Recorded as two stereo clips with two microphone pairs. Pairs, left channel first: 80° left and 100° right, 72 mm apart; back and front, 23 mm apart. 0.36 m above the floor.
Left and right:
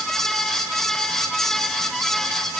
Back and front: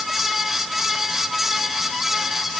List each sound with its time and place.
Only background noise.